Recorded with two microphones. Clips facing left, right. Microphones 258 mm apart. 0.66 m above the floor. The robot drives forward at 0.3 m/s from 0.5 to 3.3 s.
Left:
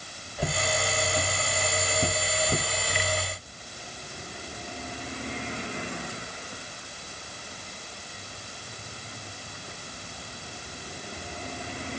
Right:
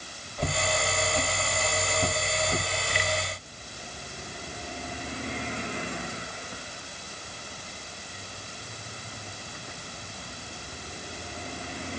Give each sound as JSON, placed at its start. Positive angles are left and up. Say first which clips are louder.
{"t": 0.4, "sound": "footsteps", "louder": "even", "side_deg": 10, "distance_m": 3.5}